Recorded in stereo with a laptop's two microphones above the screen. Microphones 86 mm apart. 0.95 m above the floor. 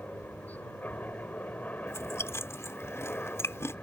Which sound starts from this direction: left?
Chewing, at 1.9 s.